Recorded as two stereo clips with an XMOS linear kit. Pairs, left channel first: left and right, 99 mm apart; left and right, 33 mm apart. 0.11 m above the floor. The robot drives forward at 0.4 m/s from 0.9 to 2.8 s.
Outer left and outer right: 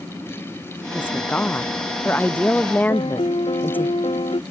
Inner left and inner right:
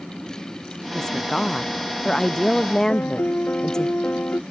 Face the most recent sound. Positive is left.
turn(degrees=70)  # may be behind; listen again after turning